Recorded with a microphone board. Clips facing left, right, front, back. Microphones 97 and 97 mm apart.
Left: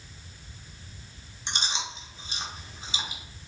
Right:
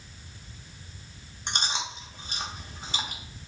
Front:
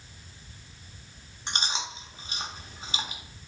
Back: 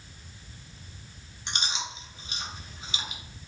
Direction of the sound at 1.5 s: 55° right.